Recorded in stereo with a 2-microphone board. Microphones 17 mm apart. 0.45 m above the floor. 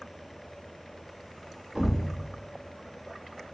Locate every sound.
1.8 s a thud: 50° right (ahead or behind), 0.6 m